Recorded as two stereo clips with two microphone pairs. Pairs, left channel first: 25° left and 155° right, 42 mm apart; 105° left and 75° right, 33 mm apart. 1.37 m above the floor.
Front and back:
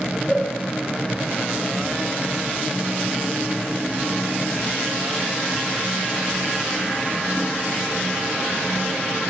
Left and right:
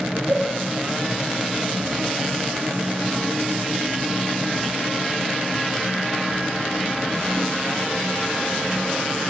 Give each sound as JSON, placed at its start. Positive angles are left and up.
{"t": 0.3, "sound": "a cowbell", "azimuth_deg": -100, "distance_m": 7.5}